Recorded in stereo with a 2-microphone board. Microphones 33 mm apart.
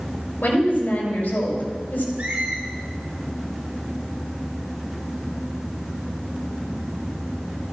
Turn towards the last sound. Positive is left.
turn(degrees=-45)  # may be behind; listen again after turning